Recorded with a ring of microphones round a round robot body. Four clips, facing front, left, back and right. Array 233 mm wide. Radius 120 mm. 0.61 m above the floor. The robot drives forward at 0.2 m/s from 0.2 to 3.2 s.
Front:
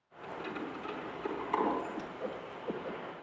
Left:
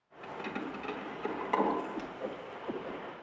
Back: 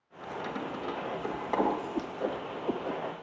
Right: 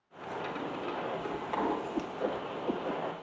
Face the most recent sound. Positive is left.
turn(degrees=-155)